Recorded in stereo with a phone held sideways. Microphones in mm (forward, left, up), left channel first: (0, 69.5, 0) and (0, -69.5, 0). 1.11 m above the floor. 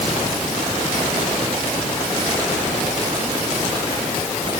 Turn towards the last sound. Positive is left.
No sound to turn to.